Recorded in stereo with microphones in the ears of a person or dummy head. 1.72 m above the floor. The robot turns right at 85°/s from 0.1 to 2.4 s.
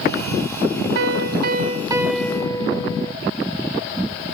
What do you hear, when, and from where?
0.9 s a piano: 105° right; by 3.1 s 20° left